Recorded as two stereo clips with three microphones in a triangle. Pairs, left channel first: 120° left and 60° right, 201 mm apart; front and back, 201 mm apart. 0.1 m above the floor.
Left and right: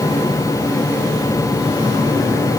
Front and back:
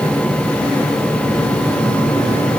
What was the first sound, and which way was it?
Only background noise.